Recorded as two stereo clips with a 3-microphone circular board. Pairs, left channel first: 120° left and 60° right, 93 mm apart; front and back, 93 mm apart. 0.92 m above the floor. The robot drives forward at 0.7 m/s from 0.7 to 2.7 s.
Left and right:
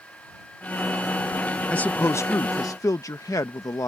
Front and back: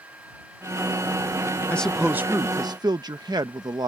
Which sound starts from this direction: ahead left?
A man speaking, at 1.7 s.